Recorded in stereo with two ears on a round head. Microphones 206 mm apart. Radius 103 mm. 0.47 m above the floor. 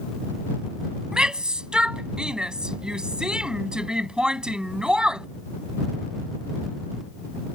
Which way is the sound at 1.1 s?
5° right (ahead or behind).